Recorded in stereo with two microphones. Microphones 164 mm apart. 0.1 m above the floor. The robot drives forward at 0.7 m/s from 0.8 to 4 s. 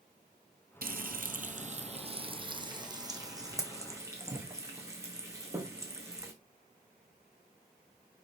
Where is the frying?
65° right (ahead or behind), 0.8 m; by 6.3 s 15° right (ahead or behind), 2.5 m.